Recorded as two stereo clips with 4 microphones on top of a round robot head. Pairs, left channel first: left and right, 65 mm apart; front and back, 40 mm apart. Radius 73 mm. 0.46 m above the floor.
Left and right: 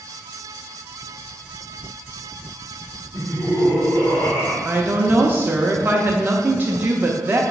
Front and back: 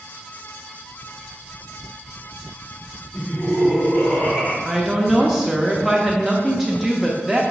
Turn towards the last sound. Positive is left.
turn(degrees=-100)